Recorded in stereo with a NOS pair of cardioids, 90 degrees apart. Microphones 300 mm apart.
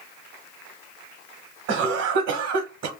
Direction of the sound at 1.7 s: 60° right.